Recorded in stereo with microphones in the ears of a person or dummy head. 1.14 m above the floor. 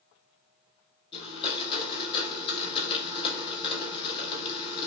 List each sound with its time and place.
1.1 s a blender: 35° left (ahead or behind), 1.5 m